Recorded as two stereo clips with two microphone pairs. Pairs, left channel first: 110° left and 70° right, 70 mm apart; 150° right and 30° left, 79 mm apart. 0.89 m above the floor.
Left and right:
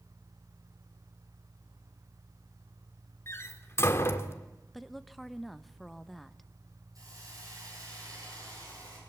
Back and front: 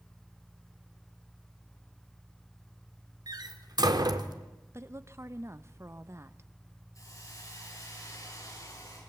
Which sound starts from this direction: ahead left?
A door slam, at 3.3 s.